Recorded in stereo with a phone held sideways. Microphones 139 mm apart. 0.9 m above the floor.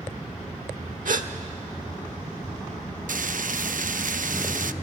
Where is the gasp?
75° right (ahead or behind), 1.1 m.